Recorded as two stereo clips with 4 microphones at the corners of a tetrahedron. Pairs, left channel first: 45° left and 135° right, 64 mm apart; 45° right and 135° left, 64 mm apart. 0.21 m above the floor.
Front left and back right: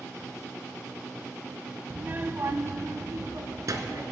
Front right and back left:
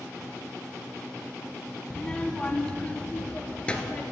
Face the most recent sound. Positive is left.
turn(degrees=-115)